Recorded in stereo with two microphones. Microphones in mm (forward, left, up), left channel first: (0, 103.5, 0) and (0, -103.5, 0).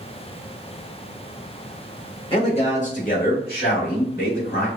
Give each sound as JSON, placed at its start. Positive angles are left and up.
{"t": 2.3, "sound": "a man speaking", "side_deg": 25, "distance_m": 1.2}